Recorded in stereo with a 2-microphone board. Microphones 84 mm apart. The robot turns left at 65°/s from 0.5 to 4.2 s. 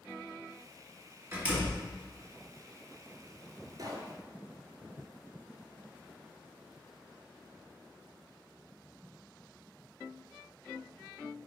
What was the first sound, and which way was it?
A door slam, 25° right (ahead or behind).